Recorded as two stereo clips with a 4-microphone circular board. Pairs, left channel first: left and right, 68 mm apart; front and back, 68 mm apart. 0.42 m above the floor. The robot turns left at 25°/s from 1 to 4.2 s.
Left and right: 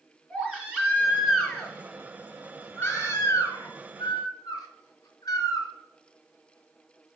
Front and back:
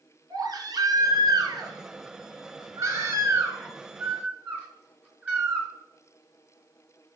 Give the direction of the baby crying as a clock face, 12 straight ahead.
5 o'clock.